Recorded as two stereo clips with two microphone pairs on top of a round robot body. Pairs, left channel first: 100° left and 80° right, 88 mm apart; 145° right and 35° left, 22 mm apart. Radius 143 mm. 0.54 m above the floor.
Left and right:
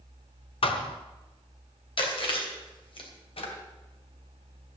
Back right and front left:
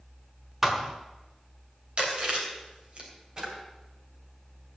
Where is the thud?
110° left, 1.3 m.